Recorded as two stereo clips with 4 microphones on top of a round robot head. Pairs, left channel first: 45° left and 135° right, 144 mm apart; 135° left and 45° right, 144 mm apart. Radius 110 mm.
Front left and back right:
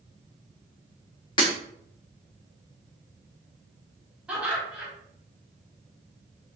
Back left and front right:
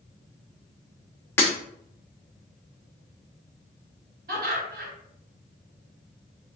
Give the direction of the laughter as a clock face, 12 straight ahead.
2 o'clock.